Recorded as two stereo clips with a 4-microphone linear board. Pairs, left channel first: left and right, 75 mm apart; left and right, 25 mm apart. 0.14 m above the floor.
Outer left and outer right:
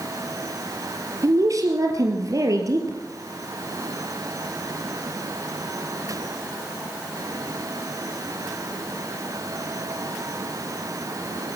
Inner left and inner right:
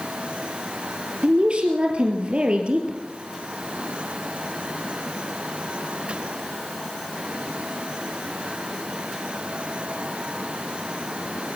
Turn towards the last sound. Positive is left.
turn(degrees=-50)  # may be behind; listen again after turning